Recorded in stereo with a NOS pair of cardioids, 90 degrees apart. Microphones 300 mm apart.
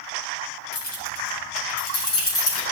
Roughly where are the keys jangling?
Ahead left.